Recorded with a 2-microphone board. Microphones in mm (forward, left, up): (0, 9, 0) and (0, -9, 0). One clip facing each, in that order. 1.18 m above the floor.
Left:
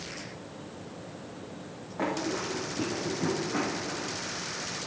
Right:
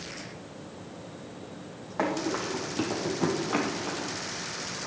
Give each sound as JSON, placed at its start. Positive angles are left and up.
{"t": 2.0, "sound": "running footsteps", "side_deg": -40, "distance_m": 3.5}